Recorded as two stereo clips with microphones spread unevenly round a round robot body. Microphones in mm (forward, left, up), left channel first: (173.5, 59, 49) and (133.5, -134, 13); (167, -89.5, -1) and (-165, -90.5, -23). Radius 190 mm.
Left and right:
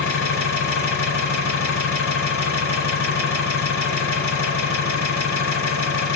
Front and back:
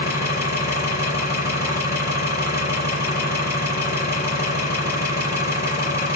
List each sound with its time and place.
0.0 s an engine running: 100° left, 3.5 m